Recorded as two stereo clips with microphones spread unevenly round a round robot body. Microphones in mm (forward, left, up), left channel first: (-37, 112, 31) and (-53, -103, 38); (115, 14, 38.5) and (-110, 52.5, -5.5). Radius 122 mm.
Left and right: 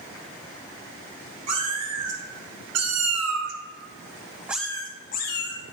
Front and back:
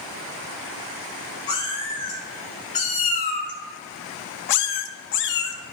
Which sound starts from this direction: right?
A cat meowing, at 1.5 s.